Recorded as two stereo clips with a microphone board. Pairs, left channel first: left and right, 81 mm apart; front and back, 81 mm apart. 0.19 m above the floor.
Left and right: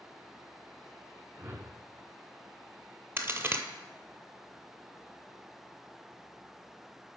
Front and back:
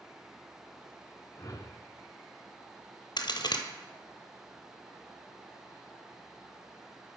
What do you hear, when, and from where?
1.4 s a whoosh: 40° right, 0.6 m
3.2 s a crack: 30° right, 0.8 m